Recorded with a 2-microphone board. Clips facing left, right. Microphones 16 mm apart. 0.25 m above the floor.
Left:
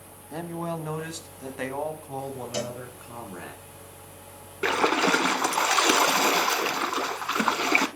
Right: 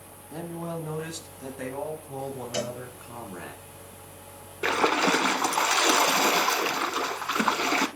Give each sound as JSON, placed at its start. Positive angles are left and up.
{"t": 0.3, "sound": "a man speaking", "side_deg": 40, "distance_m": 1.3}
{"t": 2.5, "sound": "a cowbell", "side_deg": -40, "distance_m": 3.5}
{"t": 4.6, "sound": "a splash", "side_deg": 55, "distance_m": 0.6}